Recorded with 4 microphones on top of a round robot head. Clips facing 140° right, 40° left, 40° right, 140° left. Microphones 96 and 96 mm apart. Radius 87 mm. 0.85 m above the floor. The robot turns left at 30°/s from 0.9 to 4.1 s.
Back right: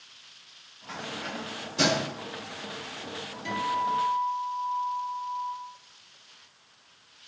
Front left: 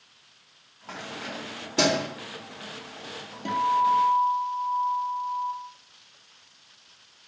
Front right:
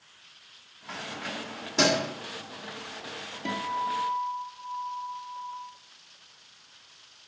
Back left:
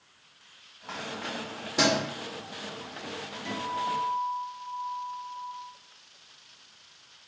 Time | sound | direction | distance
0.9 | keys jangling | 85° left | 2.5 m
3.5 | a guitar | straight ahead | 2 m